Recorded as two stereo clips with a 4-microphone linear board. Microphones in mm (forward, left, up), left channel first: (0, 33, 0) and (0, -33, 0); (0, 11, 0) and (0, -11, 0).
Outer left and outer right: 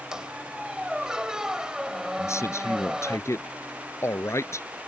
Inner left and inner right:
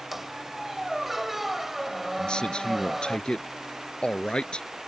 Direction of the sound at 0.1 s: 10° right (ahead or behind).